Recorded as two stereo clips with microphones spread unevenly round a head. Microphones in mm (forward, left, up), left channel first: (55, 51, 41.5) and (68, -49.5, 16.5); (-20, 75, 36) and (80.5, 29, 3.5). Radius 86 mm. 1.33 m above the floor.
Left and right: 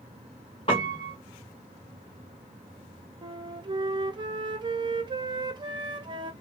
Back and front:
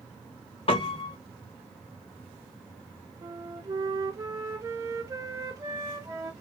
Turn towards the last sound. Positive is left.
turn(degrees=-75)